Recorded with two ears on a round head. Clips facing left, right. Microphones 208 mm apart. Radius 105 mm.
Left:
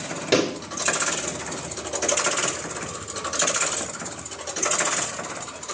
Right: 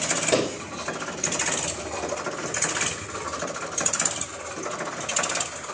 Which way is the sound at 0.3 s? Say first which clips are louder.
Left 3 dB; 25° left (ahead or behind).